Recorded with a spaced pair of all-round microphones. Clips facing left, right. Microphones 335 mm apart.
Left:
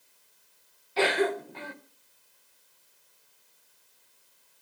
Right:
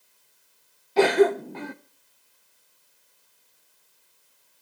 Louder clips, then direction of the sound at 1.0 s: Right 8 dB; 55° right (ahead or behind).